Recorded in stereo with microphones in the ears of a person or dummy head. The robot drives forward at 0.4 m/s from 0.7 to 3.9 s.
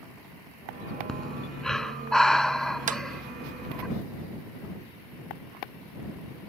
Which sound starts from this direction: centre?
Breathing, at 1.1 s.